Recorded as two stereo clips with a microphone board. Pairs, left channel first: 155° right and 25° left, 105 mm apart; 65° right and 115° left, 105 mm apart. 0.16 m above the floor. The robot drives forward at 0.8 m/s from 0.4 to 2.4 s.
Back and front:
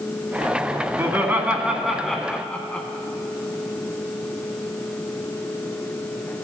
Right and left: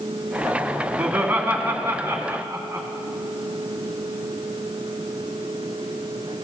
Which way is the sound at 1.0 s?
45° left.